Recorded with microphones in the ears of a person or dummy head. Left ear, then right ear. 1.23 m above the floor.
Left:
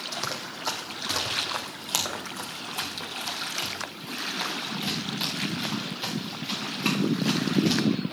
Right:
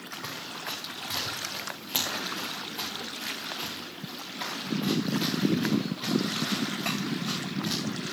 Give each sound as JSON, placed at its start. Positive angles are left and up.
{"t": 0.1, "sound": "running footsteps", "side_deg": 65, "distance_m": 3.0}